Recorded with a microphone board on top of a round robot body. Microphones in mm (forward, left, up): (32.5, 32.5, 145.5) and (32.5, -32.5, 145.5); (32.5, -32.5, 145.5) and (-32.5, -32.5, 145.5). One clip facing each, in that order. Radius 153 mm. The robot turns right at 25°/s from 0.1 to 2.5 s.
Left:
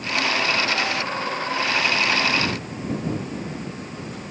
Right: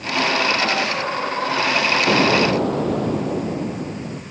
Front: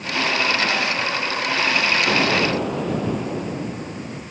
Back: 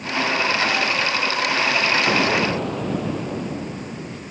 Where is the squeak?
No squeak in this recording.